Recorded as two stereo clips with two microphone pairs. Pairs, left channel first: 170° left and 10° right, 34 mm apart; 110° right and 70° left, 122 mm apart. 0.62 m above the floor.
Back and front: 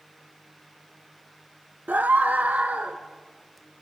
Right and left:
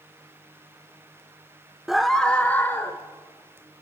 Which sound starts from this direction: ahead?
A scream, at 1.9 s.